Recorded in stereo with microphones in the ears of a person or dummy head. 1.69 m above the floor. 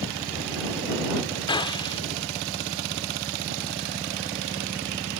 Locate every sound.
1.5 s a gunshot: 25° left (ahead or behind)